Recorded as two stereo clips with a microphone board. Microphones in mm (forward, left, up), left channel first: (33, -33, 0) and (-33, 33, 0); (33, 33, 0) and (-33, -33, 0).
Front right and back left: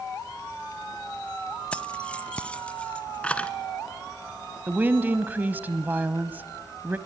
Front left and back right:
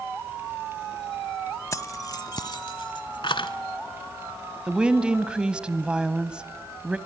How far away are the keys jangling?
About 0.8 m.